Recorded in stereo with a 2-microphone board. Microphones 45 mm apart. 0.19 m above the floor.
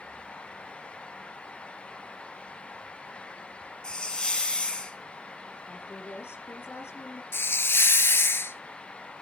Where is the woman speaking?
60° left (ahead or behind), 7.5 m.